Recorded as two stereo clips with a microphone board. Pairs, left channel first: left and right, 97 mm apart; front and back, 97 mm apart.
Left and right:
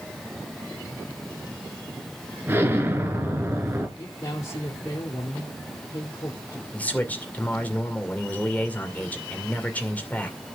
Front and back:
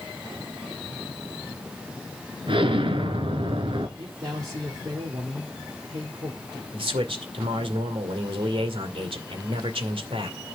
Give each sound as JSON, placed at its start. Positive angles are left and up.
{"t": 2.5, "sound": "an explosion", "azimuth_deg": -155, "distance_m": 2.0}
{"t": 4.0, "sound": "a man speaking", "azimuth_deg": 135, "distance_m": 2.5}
{"t": 6.7, "sound": "a man speaking", "azimuth_deg": 160, "distance_m": 2.0}